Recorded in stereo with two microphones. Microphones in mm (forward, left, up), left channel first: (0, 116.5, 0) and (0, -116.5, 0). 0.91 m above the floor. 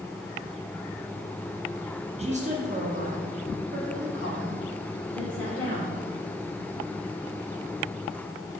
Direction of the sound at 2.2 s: 25° right (ahead or behind).